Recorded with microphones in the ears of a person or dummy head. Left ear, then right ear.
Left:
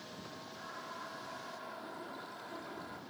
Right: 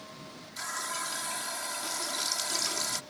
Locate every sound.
0.6 s a running tap: 65° right (ahead or behind)